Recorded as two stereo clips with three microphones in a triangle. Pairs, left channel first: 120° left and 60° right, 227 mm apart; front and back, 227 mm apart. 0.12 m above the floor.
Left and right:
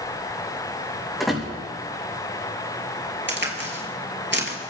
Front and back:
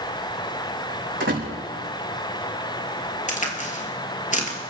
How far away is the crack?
About 2.5 m.